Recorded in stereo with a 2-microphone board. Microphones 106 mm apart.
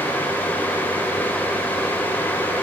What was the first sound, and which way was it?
Only background noise.